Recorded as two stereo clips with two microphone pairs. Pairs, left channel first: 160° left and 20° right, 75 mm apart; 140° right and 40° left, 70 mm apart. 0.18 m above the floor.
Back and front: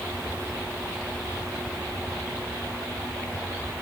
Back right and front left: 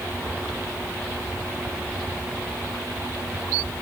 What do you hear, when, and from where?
Only background noise.